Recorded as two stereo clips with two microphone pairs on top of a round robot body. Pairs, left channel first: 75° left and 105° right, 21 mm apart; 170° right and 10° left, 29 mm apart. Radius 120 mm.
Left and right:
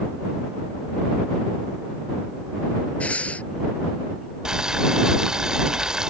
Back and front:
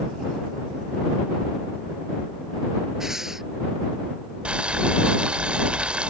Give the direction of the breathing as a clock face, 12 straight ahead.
9 o'clock.